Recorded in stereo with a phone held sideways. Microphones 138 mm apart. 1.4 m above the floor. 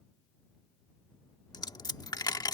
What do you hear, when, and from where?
1.5 s a dropped coin: 30° left (ahead or behind)